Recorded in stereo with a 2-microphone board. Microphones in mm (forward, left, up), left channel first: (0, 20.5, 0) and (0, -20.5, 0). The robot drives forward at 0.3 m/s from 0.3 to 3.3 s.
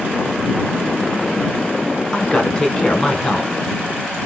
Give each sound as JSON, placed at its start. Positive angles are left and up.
{"t": 2.1, "sound": "a man speaking", "side_deg": 15, "distance_m": 1.1}